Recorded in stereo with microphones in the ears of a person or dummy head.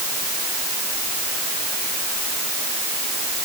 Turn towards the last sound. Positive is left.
No sound to turn to.